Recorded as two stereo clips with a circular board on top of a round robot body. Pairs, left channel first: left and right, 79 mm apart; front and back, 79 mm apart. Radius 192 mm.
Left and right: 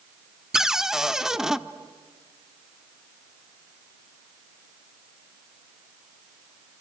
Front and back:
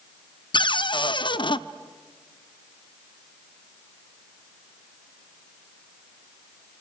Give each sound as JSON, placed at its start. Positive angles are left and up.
{"t": 0.5, "sound": "a cupboard door", "azimuth_deg": -5, "distance_m": 1.0}